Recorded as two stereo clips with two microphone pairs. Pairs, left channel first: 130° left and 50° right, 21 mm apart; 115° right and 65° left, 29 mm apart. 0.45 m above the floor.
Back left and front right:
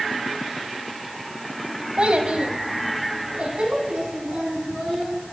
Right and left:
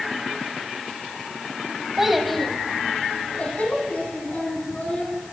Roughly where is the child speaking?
Ahead.